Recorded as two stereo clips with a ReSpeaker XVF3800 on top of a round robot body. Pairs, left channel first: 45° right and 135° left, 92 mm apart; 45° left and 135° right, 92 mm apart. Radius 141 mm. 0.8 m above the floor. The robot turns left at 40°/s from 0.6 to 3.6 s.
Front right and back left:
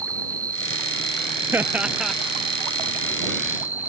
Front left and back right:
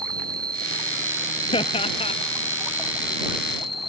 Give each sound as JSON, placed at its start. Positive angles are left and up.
{"t": 0.0, "sound": "an insect", "azimuth_deg": -175}
{"t": 1.5, "sound": "laughter", "azimuth_deg": 70}